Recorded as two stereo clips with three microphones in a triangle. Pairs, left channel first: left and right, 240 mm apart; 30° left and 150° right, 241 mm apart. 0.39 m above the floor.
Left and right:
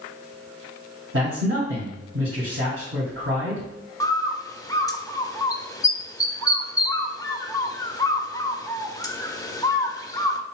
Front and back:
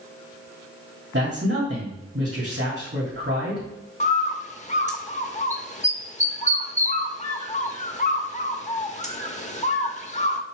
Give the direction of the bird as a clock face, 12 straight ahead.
11 o'clock.